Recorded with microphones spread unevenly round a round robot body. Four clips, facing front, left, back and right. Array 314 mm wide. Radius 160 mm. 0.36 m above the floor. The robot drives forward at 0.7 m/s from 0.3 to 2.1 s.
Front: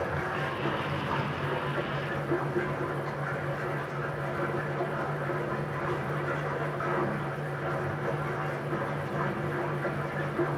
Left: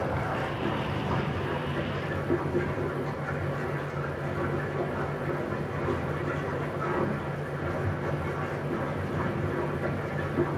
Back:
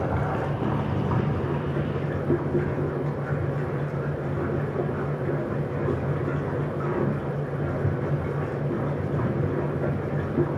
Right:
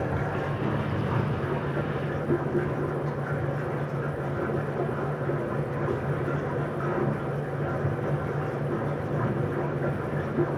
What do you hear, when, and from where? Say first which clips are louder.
0.0 s running water: right 1 dB, back 4 dB; 175° right, 0.8 m; by 10.6 s straight behind, 2 m